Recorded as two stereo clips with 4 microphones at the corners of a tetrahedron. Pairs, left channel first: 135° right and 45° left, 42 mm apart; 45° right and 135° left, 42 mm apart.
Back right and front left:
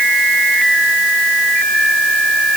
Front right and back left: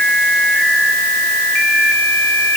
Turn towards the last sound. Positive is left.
No sound to turn to.